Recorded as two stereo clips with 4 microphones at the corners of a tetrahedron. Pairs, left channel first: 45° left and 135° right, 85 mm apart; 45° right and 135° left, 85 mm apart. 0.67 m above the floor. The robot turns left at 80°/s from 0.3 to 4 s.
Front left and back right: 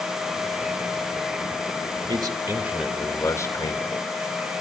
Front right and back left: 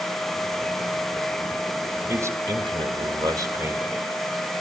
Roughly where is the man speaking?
Behind.